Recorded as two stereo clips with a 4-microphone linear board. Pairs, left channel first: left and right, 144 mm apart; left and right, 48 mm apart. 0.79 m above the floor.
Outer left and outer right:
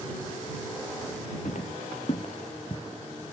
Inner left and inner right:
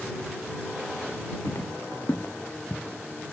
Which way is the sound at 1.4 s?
60° left (ahead or behind).